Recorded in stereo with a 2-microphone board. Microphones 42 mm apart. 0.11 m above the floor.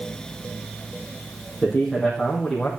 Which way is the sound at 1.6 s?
5° right (ahead or behind).